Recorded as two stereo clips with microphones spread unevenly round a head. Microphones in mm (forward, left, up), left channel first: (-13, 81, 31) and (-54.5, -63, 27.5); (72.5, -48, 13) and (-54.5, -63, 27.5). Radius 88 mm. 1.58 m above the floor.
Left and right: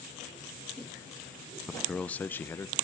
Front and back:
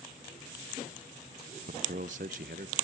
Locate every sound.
1.7 s a man speaking: 165° left, 0.6 m; by 2.8 s 145° left, 1.3 m